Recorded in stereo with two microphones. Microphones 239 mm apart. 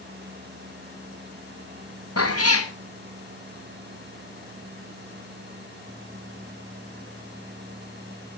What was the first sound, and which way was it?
A cat meowing, 80° left.